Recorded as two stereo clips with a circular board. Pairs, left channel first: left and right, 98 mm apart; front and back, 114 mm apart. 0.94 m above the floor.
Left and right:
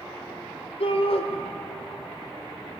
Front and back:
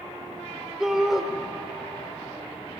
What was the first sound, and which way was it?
A shout, 95° left.